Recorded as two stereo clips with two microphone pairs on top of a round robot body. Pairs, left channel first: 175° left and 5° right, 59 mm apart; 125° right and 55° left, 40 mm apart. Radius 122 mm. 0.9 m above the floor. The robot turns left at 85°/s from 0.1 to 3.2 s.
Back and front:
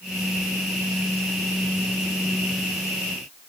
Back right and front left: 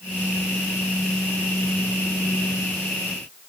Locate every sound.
Only background noise.